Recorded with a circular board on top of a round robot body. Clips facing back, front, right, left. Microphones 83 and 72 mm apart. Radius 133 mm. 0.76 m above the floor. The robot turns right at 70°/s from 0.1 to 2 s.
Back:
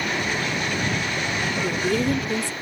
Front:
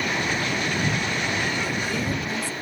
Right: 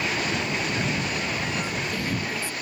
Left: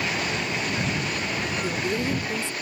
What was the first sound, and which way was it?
A woman speaking, 135° left.